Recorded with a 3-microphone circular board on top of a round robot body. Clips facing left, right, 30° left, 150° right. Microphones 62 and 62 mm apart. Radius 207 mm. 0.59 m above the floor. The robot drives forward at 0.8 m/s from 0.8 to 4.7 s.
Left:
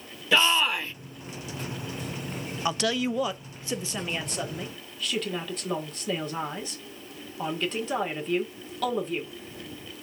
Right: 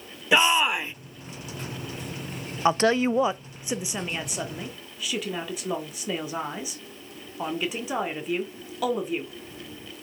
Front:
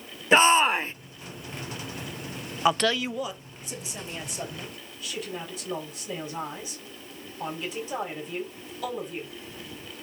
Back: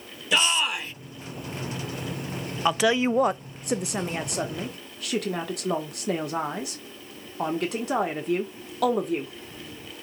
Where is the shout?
20° right, 0.9 m.